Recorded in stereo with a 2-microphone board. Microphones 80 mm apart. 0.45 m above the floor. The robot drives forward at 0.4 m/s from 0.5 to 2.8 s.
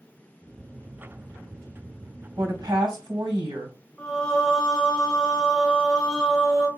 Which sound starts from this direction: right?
A woman speaking, at 2.4 s.